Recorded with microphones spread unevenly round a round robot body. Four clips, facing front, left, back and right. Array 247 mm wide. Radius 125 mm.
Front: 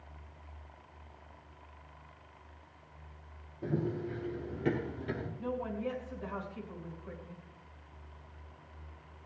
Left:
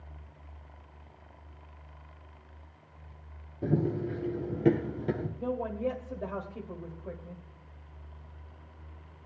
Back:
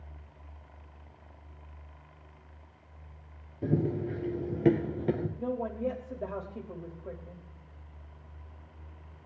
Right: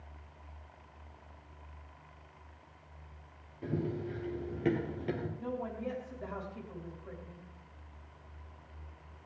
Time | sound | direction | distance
3.6 | running footsteps | 130° left | 1.3 m
5.4 | a woman speaking | 145° left | 2 m